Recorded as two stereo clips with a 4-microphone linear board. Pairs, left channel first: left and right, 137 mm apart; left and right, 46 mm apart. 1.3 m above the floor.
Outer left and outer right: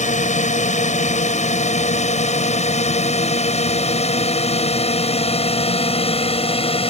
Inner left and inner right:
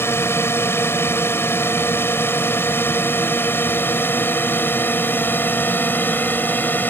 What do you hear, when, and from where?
0.0 s a drone: 60° left (ahead or behind); by 6.9 s 45° left (ahead or behind)